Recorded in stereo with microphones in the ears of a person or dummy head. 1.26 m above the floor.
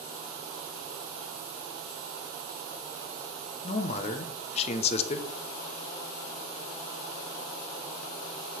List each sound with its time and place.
3.6 s a man speaking: 40° left (ahead or behind), 1.0 m